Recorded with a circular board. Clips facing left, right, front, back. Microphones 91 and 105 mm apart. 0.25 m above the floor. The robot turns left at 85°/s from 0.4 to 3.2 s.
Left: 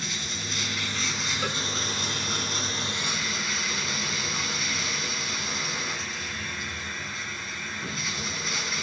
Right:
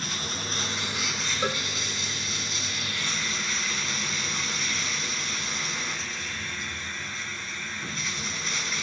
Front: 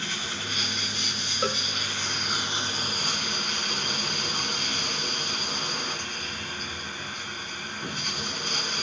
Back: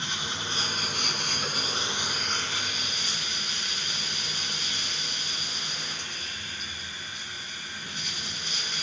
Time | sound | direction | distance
0.0 | running water | 115° right | 1.8 m
1.4 | a cowbell | 25° right | 0.6 m